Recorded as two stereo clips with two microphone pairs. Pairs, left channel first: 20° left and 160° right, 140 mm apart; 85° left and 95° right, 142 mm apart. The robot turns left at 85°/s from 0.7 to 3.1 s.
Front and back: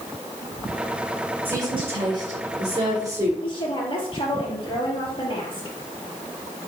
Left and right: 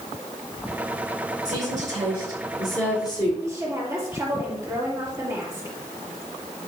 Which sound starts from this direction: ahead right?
A woman speaking, at 3.4 s.